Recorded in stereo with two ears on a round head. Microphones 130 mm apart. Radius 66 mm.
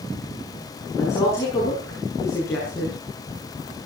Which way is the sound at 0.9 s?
20° left (ahead or behind).